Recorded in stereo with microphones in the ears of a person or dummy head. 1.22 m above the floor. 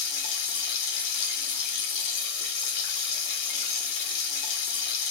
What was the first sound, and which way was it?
Running water, 45° left (ahead or behind).